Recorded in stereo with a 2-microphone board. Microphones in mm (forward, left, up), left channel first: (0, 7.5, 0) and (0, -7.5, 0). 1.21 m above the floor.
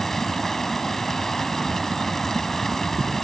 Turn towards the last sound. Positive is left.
turn(degrees=25)  # may be behind; listen again after turning